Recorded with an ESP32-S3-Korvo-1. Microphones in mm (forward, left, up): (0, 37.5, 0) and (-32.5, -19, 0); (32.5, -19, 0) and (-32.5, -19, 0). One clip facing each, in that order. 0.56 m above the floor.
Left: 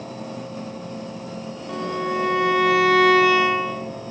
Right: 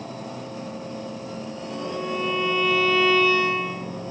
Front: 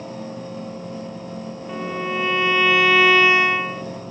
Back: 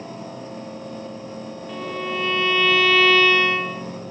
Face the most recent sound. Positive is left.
turn(degrees=70)